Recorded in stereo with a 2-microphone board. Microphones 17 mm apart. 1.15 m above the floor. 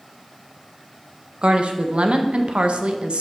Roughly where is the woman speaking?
Right.